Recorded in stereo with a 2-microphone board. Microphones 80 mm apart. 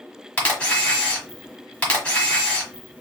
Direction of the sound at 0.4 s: 15° left (ahead or behind).